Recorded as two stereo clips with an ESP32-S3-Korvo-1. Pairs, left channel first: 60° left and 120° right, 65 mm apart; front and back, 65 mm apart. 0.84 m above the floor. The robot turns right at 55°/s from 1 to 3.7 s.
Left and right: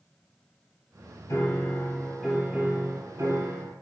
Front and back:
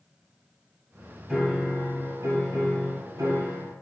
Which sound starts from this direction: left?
A piano, at 1.3 s.